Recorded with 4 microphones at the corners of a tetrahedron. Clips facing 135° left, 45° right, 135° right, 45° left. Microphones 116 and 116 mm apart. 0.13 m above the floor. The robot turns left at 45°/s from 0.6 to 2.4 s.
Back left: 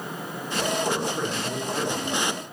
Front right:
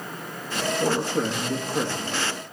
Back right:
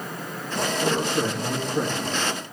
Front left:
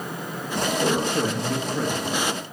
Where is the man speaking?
20° right, 4 m; by 2.3 s 85° right, 4 m.